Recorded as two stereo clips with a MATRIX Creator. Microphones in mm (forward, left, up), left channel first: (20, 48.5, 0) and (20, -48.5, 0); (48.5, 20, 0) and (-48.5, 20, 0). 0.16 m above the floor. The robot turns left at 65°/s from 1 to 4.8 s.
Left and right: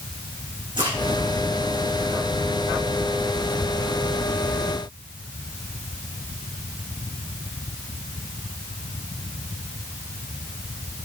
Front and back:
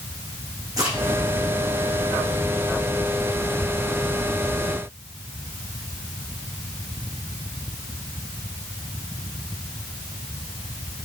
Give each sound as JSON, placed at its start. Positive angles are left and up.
{"t": 0.8, "sound": "a crack", "azimuth_deg": -130, "distance_m": 5.5}